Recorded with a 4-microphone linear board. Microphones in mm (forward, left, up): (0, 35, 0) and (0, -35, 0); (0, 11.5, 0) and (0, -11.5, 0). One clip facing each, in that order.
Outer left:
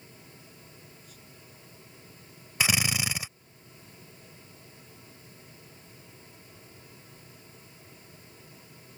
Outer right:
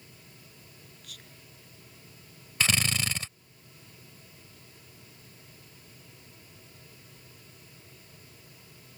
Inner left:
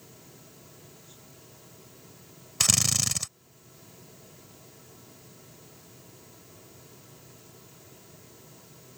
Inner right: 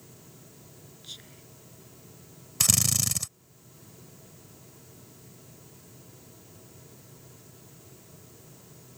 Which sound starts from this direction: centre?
A drill, at 2.6 s.